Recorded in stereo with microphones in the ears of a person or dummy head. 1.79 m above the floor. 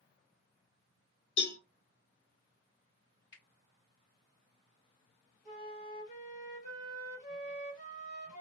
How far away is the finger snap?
About 2 m.